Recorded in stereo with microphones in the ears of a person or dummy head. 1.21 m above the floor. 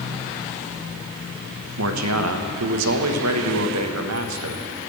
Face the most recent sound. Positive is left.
turn(degrees=-80)